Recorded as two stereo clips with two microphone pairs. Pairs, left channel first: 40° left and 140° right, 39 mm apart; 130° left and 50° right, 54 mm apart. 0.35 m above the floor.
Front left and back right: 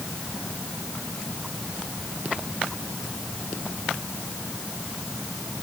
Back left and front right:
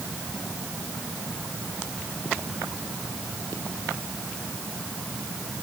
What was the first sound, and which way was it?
Only background noise.